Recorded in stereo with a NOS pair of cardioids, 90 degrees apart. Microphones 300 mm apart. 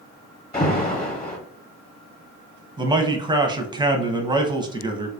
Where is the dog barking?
I don't hear a dog barking.